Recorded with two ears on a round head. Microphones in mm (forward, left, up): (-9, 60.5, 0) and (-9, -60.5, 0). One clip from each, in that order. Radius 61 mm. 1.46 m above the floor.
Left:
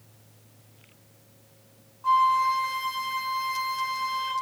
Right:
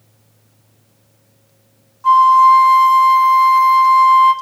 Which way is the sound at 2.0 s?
50° right (ahead or behind).